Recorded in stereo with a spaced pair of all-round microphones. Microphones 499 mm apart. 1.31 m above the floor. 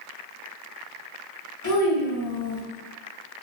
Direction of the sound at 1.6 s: 35° left (ahead or behind).